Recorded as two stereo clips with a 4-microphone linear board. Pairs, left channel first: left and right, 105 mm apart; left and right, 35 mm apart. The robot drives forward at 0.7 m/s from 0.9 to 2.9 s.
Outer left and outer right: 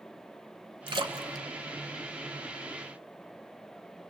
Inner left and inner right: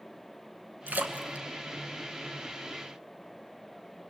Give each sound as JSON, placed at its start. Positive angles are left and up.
{"t": 0.9, "sound": "a splash", "side_deg": -55, "distance_m": 1.1}